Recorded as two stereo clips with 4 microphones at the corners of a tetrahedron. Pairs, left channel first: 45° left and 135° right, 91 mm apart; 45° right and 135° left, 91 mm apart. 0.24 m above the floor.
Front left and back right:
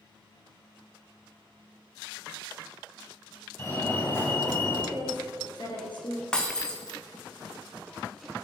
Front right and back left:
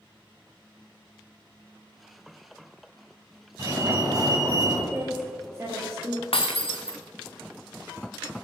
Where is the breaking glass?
35° right, 1.4 m.